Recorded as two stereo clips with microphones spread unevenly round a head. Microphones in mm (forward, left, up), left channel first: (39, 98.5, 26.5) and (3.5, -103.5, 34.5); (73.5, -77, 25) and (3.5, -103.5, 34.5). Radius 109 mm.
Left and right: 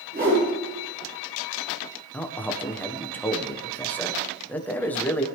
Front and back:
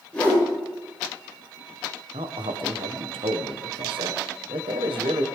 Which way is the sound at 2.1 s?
160° left.